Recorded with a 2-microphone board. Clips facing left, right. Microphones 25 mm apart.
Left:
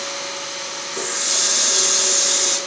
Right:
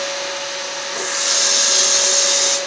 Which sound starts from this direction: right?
A running tap, at 0.9 s.